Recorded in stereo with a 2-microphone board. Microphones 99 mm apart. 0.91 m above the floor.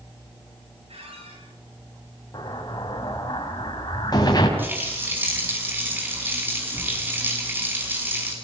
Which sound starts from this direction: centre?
A running tap, at 4.6 s.